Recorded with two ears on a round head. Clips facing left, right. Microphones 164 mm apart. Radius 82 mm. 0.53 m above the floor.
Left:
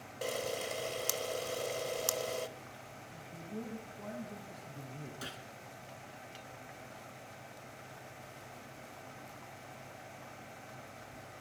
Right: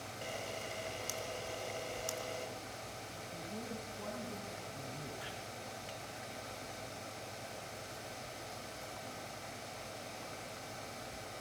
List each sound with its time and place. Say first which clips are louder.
0.2 s a camera shutter: left 7 dB; 65° left (ahead or behind), 1.4 m
3.1 s a man speaking: left 3 dB; 10° left (ahead or behind), 4.5 m
5.2 s a gunshot: even; 55° left (ahead or behind), 4 m